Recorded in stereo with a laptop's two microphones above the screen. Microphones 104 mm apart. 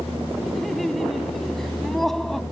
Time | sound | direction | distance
0.5 | laughter | centre (ahead or behind) | ?